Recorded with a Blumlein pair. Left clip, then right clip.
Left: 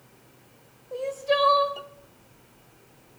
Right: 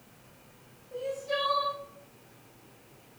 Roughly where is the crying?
Ahead left.